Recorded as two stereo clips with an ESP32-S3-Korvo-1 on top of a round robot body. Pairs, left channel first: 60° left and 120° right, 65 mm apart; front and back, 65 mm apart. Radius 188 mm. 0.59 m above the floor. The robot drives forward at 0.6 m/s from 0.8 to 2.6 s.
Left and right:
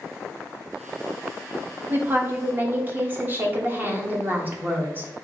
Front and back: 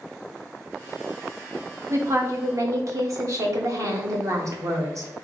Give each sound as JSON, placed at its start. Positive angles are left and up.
{"t": 1.9, "sound": "a woman speaking", "azimuth_deg": -165, "distance_m": 1.3}